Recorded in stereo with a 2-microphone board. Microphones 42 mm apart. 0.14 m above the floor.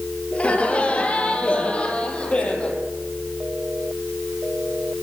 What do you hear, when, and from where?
0.3 s laughter: 30° left (ahead or behind), 2.5 m; by 2.8 s 25° left (ahead or behind), 4.5 m